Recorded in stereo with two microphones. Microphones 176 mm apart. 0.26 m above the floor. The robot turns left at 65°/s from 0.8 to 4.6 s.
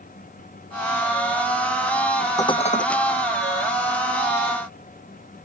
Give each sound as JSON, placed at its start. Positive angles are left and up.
{"t": 2.4, "sound": "dishes clattering", "azimuth_deg": 160}